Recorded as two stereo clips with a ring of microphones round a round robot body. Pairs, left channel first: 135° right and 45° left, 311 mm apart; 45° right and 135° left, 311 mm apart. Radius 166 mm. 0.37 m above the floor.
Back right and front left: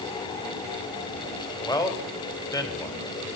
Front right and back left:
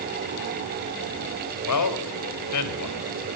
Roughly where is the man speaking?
Ahead right.